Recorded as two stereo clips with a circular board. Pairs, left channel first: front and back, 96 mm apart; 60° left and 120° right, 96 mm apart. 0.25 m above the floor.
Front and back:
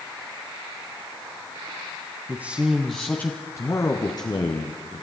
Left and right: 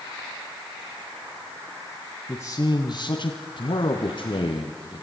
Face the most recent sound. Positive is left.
turn(degrees=30)